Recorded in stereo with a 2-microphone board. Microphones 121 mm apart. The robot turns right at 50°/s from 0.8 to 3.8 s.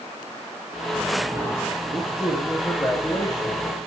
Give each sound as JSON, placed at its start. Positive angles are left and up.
{"t": 1.9, "sound": "a man speaking", "azimuth_deg": -35, "distance_m": 8.0}